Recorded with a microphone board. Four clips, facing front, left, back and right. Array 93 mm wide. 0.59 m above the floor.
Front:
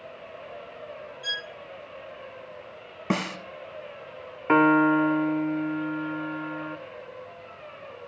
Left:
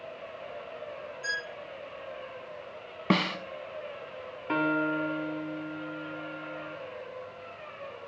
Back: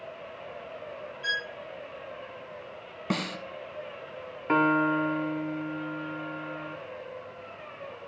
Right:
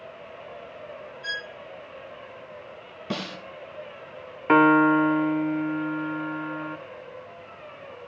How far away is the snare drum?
About 0.7 m.